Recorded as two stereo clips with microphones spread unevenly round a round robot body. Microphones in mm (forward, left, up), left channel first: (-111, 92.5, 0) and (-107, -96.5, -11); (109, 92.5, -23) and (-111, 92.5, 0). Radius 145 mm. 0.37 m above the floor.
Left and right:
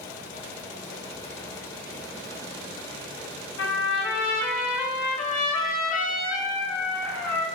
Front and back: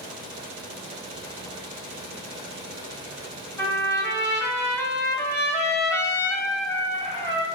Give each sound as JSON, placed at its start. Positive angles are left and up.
{"t": 3.6, "sound": "a trumpet", "azimuth_deg": 75, "distance_m": 0.9}